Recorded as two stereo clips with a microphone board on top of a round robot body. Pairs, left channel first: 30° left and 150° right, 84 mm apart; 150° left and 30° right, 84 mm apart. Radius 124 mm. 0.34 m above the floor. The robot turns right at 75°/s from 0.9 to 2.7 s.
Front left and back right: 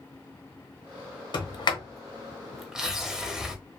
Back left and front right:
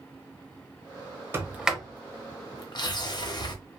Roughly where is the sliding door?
Ahead left.